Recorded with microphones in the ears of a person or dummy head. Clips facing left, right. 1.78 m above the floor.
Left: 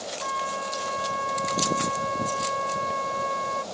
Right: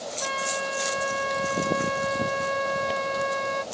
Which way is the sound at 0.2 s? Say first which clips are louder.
Right 3 dB; 35° right (ahead or behind).